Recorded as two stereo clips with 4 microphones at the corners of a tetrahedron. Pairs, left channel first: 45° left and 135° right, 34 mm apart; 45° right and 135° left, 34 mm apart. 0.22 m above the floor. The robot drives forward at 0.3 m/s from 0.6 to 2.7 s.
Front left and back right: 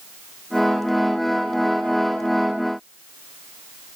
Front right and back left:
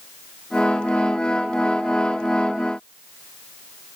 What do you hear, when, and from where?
Only background noise.